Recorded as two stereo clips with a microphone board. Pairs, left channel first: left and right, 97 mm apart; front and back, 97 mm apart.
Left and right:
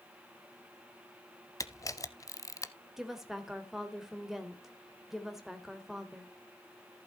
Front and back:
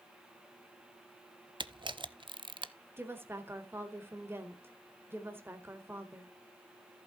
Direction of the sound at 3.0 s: 170° right.